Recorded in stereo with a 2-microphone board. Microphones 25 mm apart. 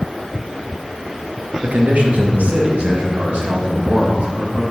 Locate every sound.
1.6 s a man speaking: 85° right, 1.1 m; by 4.6 s 50° right (ahead or behind), 2.5 m